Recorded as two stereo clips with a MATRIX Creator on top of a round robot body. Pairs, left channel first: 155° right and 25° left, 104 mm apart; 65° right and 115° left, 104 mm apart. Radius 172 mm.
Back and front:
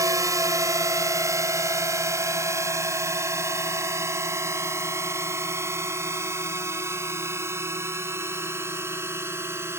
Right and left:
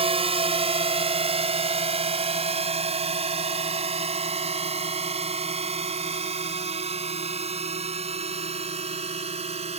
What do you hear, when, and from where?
0.0 s a drone: 80° left; by 9.8 s 90° left